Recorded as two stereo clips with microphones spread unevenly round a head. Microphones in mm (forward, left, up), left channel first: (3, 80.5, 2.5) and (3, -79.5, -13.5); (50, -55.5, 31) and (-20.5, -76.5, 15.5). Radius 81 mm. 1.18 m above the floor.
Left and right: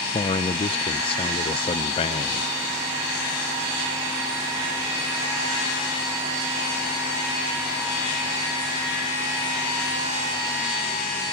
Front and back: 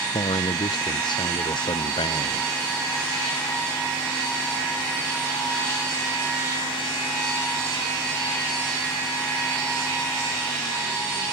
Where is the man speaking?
30° left.